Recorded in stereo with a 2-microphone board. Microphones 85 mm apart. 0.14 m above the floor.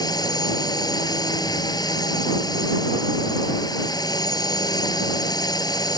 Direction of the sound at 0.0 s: 50° left (ahead or behind).